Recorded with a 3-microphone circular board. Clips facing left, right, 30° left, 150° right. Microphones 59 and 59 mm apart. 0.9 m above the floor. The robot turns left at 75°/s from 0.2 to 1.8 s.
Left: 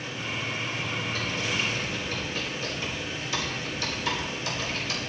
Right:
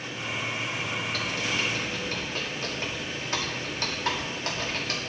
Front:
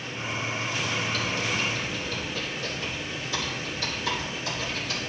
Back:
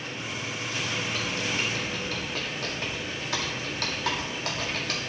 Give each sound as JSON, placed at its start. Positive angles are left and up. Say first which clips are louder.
{"t": 1.1, "sound": "typing on a keyboard", "louder": "even, front 2 dB", "azimuth_deg": -75, "distance_m": 1.8}